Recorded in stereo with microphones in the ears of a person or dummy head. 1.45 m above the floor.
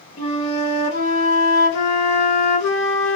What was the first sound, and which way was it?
A flute, 65° left (ahead or behind).